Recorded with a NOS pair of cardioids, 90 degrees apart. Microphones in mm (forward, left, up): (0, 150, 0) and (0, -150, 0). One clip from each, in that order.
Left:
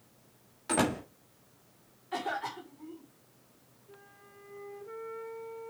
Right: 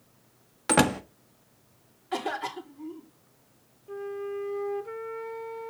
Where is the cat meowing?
I don't hear a cat meowing.